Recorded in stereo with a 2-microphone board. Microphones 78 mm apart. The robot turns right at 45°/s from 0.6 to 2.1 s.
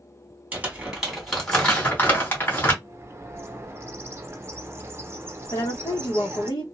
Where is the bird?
35° right (ahead or behind), 0.6 m.